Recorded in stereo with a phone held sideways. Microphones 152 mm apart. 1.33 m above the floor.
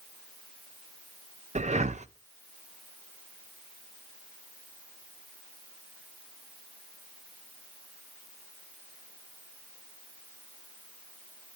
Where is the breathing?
45° right (ahead or behind), 0.6 m.